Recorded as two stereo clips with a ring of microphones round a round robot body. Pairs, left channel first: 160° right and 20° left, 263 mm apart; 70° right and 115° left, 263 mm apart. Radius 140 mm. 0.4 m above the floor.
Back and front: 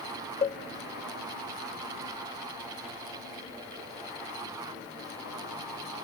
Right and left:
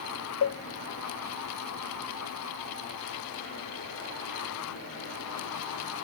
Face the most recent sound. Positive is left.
turn(degrees=-100)